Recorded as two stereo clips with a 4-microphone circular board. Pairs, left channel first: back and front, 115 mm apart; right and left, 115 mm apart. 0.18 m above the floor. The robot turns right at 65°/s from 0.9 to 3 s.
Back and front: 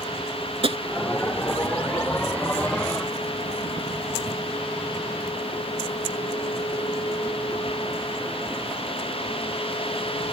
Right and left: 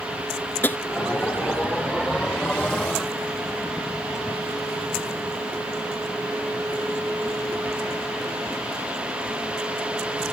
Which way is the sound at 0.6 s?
20° right.